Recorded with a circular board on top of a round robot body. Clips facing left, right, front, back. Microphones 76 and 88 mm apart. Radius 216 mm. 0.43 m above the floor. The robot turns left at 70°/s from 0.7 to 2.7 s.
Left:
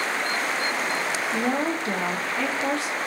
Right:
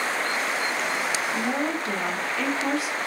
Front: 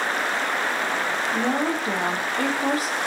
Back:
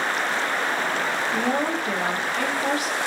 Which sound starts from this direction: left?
A woman speaking, at 1.3 s.